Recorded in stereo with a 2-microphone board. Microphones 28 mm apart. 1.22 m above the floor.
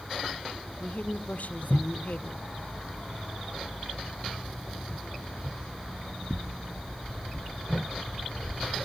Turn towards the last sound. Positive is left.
turn(degrees=60)  # may be behind; listen again after turning